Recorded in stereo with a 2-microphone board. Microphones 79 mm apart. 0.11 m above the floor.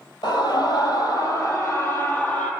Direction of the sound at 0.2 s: 60° left (ahead or behind).